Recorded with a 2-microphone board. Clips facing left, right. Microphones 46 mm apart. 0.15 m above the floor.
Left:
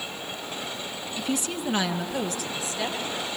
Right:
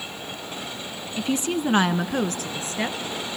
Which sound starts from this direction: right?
A woman speaking, at 1.2 s.